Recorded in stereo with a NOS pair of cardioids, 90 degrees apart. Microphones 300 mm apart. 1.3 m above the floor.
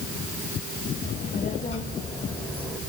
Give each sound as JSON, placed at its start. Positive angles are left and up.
{"t": 1.0, "sound": "a child speaking", "azimuth_deg": 30, "distance_m": 3.5}